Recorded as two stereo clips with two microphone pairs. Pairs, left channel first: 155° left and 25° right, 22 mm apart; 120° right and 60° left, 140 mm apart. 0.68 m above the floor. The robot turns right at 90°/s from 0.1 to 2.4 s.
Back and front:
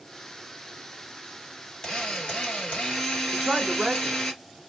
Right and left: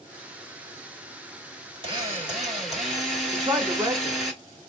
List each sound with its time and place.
1.8 s a drill: 100° left, 1.9 m; by 4.3 s 150° left, 1.9 m
3.3 s a man speaking: 10° left, 0.8 m